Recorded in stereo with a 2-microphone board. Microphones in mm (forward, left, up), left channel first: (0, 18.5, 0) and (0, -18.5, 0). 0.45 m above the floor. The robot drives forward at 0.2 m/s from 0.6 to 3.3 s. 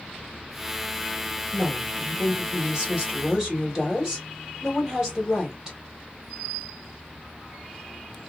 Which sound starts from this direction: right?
A woman speaking, at 1.5 s.